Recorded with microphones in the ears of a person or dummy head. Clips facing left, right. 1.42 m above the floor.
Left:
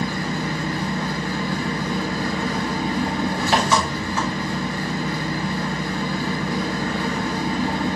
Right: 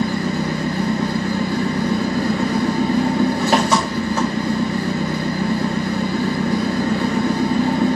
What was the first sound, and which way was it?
An engine running, 40° right (ahead or behind).